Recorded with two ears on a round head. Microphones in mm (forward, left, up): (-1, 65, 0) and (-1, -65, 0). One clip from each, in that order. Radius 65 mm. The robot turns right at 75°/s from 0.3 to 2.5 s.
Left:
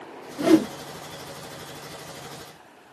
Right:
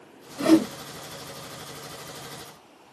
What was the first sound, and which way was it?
A whoosh, 40° right (ahead or behind).